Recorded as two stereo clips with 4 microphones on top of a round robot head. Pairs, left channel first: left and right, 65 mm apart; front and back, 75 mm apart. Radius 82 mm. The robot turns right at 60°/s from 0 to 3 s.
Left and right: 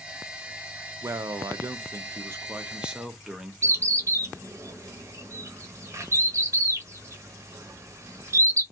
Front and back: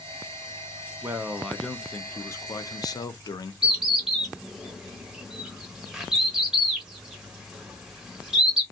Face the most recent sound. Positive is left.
turn(degrees=-100)